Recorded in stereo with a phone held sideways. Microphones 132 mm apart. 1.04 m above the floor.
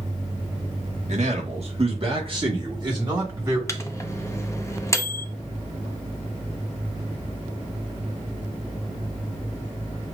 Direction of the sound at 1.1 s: 60° right (ahead or behind).